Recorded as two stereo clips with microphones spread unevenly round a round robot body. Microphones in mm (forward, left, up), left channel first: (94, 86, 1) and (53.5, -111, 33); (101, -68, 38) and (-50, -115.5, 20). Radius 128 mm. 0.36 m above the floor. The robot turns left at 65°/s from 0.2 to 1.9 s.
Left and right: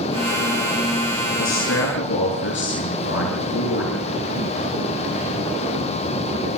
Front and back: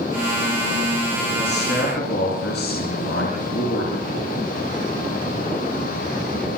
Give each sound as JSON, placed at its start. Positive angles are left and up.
{"t": 1.4, "sound": "a man speaking", "azimuth_deg": 90, "distance_m": 6.5}